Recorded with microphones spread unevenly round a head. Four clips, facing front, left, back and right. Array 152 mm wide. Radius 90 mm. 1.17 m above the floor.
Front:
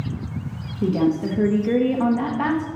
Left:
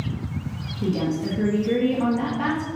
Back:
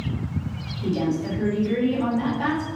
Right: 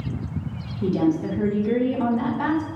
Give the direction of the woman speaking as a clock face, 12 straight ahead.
12 o'clock.